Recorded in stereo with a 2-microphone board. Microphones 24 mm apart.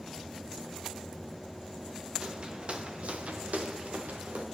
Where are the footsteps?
40° right (ahead or behind), 1.2 m; by 4.5 s 85° right, 1.6 m.